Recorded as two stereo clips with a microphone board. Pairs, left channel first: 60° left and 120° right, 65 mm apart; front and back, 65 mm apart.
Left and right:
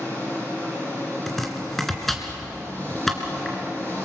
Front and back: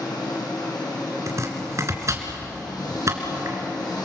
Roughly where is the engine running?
Ahead.